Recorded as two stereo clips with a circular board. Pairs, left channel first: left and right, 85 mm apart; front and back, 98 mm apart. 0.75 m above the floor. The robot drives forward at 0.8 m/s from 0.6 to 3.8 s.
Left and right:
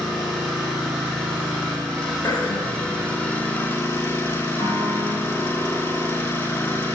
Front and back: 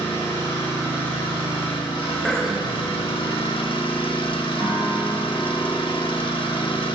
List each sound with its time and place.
0.0 s an engine running: 5° left, 3.5 m; by 7.0 s 25° left, 0.8 m
2.2 s throat clearing: 80° left, 0.9 m; by 2.9 s 120° left, 1.0 m
4.6 s a piano: 130° left, 2 m